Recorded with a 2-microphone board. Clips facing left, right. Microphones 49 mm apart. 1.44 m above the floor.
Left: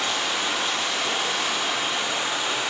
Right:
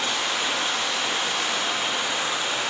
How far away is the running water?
About 3.5 m.